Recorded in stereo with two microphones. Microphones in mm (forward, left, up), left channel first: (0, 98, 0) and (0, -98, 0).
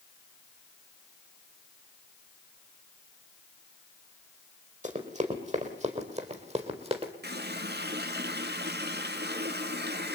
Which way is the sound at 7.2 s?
65° right (ahead or behind).